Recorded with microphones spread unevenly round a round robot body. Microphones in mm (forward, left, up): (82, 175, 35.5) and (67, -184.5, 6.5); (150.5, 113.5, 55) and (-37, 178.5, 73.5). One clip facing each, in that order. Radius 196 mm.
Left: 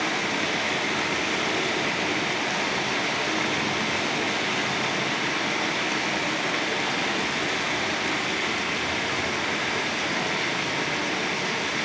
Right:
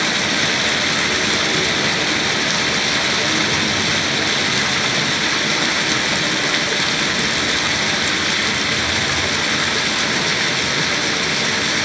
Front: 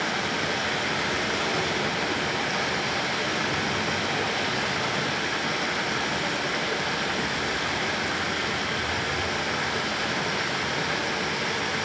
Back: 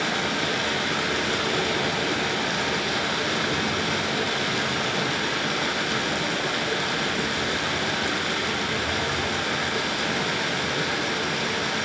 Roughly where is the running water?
Behind right.